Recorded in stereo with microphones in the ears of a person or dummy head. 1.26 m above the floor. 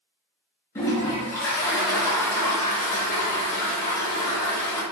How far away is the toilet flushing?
About 0.7 m.